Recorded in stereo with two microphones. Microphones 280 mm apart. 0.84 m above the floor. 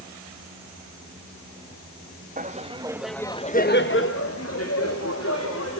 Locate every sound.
2.4 s laughter: 25° right (ahead or behind), 1.5 m; by 5.8 s 55° left (ahead or behind), 3.5 m